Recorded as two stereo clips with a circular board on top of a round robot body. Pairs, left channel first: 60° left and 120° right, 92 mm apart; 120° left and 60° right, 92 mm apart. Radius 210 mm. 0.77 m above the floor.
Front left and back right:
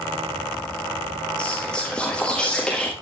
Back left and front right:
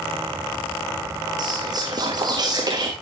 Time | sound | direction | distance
1.4 | whispering | 20° right | 1.6 m